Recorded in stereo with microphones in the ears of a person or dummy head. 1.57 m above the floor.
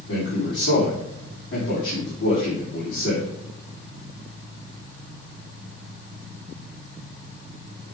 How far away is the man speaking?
About 4 m.